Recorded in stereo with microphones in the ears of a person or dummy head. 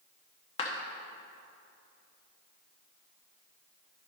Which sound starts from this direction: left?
A clap, at 0.6 s.